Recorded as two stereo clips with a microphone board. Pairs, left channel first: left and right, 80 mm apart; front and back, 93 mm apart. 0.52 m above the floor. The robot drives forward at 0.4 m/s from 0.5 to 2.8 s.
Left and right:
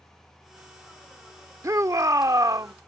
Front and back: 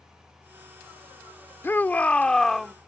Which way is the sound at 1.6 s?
60° right.